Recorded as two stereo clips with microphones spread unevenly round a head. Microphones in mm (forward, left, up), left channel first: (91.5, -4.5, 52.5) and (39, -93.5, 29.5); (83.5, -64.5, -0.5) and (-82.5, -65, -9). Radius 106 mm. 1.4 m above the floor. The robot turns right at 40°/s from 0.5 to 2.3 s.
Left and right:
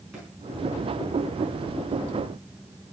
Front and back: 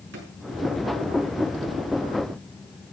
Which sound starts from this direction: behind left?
A drawer, at 0.1 s.